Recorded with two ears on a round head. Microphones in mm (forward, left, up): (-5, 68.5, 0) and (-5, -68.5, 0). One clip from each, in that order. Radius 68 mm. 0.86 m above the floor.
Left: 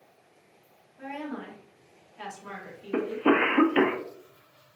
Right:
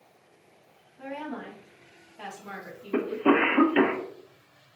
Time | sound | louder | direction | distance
1.0 | a woman speaking | even | 55° left (ahead or behind) | 2 m
2.9 | a cough | right 1 dB | 15° left (ahead or behind) | 0.8 m